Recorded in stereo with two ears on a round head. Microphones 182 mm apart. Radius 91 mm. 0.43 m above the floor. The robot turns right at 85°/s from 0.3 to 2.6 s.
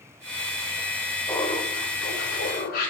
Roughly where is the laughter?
Ahead.